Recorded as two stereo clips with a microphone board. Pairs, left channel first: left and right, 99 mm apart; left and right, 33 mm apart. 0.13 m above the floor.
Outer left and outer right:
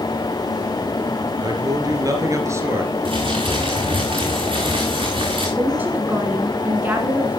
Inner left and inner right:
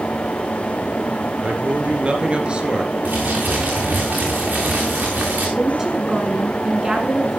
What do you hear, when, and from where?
1.4 s a man speaking: 45° right (ahead or behind), 2.5 m; by 2.9 s 25° right (ahead or behind), 2.5 m
3.0 s crumpling: 65° right (ahead or behind), 3.5 m
5.6 s a woman speaking: 20° right (ahead or behind), 1.6 m